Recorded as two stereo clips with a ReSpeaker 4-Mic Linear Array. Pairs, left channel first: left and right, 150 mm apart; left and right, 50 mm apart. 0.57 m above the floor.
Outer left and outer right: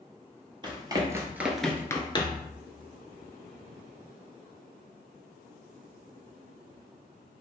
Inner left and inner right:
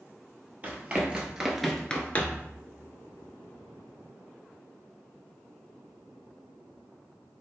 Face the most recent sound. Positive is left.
turn(degrees=40)  # may be behind; listen again after turning